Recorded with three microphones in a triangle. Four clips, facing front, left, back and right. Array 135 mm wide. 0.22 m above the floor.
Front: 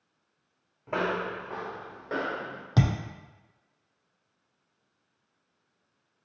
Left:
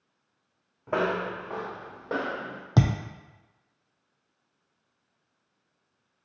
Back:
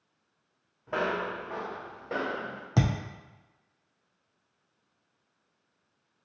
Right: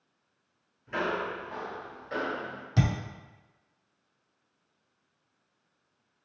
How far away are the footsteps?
About 0.7 m.